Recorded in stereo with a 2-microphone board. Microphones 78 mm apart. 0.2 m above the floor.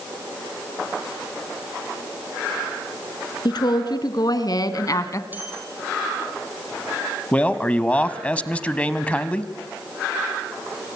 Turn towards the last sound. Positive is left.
turn(degrees=15)  # may be behind; listen again after turning